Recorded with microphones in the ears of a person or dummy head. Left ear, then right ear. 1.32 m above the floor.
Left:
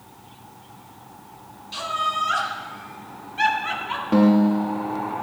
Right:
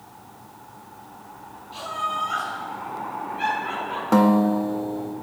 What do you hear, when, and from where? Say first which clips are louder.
1.7 s laughter: left 3 dB; 55° left (ahead or behind), 6 m; by 4.0 s 65° left (ahead or behind), 7 m
4.1 s a guitar: right 1 dB; 50° right (ahead or behind), 1.1 m